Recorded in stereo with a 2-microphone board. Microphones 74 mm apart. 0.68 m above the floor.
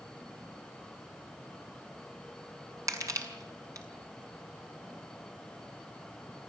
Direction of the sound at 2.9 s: 45° right (ahead or behind).